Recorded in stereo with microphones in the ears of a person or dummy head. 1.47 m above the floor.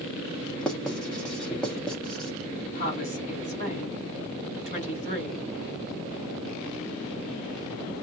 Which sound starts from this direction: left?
A woman speaking, at 2.8 s.